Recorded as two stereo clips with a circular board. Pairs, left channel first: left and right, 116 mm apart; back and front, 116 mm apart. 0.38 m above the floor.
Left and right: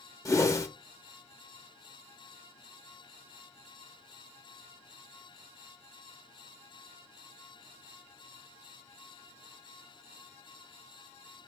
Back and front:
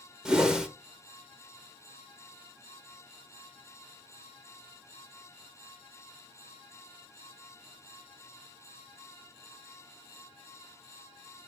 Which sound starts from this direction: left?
A whoosh, at 0.2 s.